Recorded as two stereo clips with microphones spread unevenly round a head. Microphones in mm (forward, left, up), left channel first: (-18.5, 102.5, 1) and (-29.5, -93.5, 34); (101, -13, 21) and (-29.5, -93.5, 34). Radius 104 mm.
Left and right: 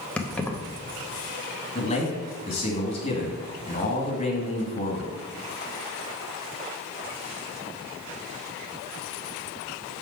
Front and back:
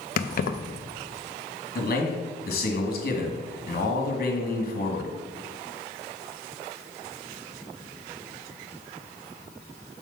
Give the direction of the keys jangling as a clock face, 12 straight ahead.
12 o'clock.